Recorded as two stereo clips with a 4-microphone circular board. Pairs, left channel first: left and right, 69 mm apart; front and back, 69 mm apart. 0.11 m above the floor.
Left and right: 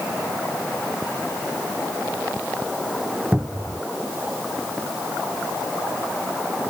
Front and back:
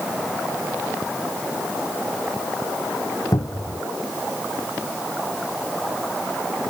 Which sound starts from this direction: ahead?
A cupboard door, at 3.3 s.